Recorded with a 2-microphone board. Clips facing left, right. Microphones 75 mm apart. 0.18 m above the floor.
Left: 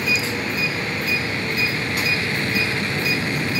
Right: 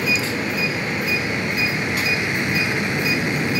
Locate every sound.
0.0 s an aircraft: 20° right (ahead or behind)